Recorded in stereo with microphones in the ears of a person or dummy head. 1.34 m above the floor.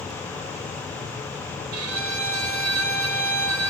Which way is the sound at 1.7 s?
80° right.